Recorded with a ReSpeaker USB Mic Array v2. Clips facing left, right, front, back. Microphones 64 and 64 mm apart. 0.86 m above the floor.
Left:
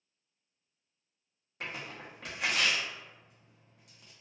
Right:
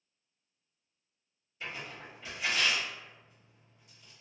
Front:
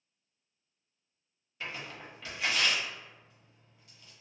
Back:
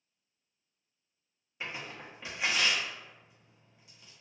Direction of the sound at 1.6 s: 110° left.